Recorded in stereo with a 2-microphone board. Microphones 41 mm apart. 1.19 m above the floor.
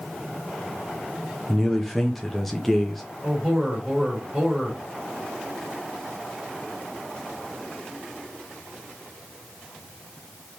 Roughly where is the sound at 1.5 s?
Centre.